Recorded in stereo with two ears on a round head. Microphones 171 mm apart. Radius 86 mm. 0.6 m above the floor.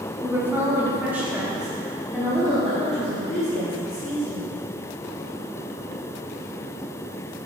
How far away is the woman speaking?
About 0.9 m.